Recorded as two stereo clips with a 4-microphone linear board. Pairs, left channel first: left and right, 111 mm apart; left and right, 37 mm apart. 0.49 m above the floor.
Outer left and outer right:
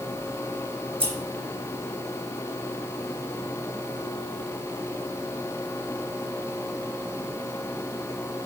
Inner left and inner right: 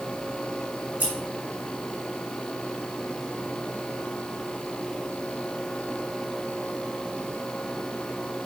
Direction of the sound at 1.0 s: 50° right (ahead or behind).